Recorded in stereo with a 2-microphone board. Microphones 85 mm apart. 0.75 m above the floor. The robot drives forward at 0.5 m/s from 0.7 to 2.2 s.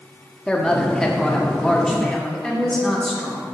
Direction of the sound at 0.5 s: 10° left (ahead or behind).